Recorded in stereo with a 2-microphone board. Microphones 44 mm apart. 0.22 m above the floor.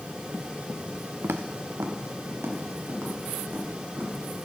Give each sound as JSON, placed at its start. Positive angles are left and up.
{"t": 1.2, "sound": "footsteps", "side_deg": -60, "distance_m": 0.8}